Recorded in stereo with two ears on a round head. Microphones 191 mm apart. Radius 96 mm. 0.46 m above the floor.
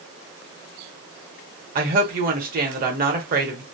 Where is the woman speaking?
40° right (ahead or behind), 1.2 m.